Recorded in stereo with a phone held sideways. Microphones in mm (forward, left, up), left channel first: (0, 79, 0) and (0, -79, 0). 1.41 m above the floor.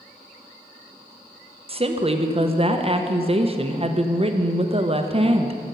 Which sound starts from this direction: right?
A woman speaking, at 1.7 s.